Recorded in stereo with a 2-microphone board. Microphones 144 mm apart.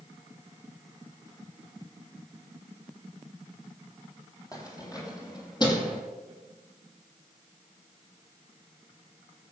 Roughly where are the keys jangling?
Left.